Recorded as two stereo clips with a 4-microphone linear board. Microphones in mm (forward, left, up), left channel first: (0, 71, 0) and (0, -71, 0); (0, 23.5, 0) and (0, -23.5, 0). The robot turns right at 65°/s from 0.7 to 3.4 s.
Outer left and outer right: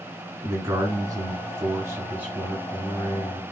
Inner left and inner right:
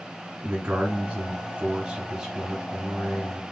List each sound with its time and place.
0.4 s a man speaking: 20° right (ahead or behind), 1.5 m; by 3.4 s 20° left (ahead or behind), 1.5 m